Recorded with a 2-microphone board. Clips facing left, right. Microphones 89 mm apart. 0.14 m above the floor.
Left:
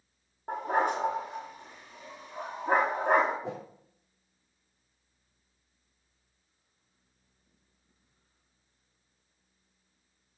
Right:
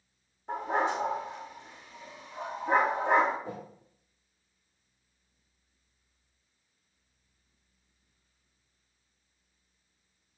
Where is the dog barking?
50° left (ahead or behind), 5 m.